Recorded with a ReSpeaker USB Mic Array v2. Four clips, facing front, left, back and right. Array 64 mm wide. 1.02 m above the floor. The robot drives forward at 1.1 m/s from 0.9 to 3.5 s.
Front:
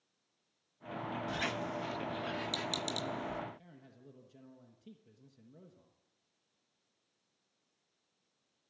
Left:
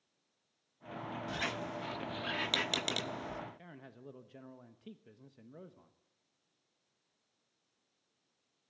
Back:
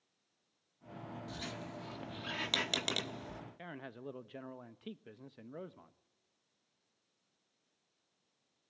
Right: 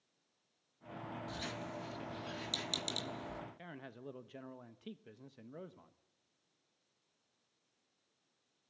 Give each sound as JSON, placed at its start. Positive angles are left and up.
{"t": 1.3, "sound": "a squeak", "azimuth_deg": 40, "distance_m": 1.2}
{"t": 3.6, "sound": "a man speaking", "azimuth_deg": -170, "distance_m": 1.1}